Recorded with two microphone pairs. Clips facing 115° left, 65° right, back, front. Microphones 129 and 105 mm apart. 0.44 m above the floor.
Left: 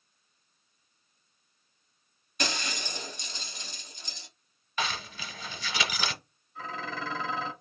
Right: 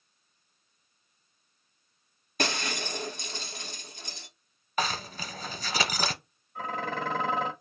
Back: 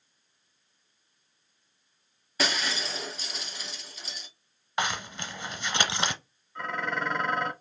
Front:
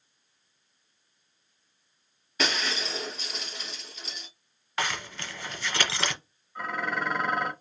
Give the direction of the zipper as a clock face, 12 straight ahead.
4 o'clock.